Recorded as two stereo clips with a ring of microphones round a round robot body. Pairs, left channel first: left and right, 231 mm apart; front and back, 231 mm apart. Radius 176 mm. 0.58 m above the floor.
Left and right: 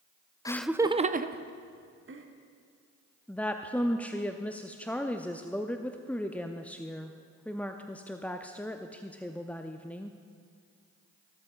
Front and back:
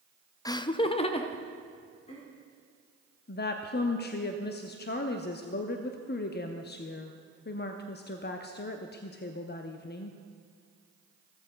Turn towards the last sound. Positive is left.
turn(degrees=10)